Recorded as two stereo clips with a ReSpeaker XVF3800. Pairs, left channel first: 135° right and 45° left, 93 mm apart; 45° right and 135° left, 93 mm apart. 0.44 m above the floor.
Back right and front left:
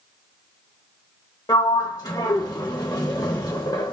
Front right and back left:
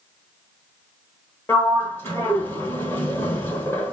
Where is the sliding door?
100° right, 1.0 m.